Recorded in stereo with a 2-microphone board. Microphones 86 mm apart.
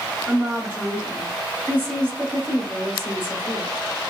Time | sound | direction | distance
0.3 | a woman speaking | 25° right (ahead or behind) | 1.3 m